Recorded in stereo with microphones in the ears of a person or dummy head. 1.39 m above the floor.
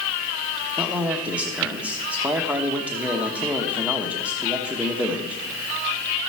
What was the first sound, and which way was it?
A man speaking, 10° right (ahead or behind).